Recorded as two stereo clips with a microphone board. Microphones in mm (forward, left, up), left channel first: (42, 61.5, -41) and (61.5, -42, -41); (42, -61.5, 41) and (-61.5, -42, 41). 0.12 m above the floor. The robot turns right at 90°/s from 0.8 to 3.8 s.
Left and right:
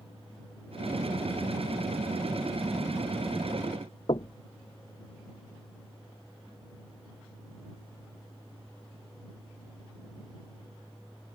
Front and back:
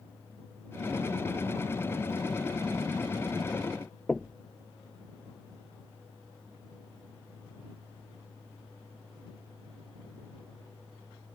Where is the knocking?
75° left.